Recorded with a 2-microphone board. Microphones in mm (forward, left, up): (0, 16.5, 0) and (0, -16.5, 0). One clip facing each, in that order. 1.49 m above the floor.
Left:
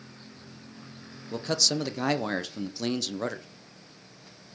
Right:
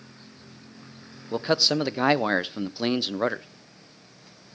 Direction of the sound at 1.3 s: 30° right (ahead or behind).